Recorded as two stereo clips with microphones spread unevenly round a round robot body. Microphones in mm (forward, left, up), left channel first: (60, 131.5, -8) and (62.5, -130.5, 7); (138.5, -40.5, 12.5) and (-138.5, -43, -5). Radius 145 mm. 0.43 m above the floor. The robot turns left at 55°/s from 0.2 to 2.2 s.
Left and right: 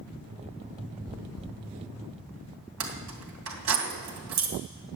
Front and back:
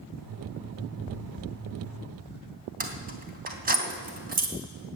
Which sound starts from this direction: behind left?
Chewing, at 1.1 s.